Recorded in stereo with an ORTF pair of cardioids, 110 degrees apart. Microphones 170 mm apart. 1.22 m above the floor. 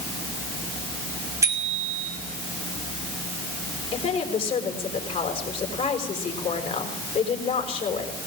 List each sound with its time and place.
1.4 s a bicycle bell: 15° right, 5.5 m
3.9 s a woman speaking: 35° left, 5.5 m